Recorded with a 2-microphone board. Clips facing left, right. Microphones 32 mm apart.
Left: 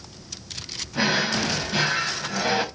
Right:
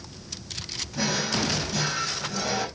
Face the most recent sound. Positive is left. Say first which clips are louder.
# left 4 dB
turn(degrees=40)  # may be behind; listen again after turning